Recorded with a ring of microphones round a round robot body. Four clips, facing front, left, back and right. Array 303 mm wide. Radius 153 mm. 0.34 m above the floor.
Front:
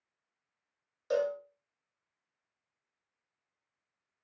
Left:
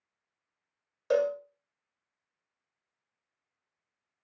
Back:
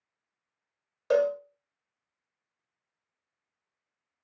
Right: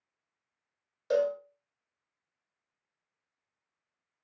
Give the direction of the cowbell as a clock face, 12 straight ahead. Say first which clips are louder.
Left 1 dB, back 6 dB; 7 o'clock.